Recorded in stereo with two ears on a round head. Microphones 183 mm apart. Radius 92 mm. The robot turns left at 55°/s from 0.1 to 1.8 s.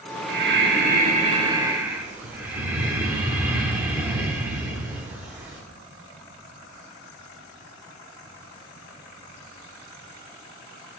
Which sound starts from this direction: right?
Breathing, at 0.3 s.